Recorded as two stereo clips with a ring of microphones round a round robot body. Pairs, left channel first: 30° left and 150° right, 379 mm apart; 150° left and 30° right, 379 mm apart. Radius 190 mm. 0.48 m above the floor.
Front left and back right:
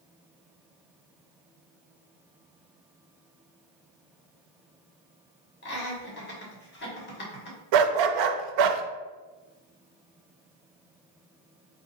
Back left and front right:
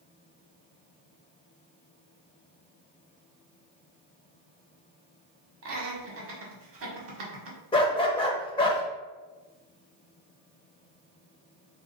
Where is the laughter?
10° right, 1.5 m.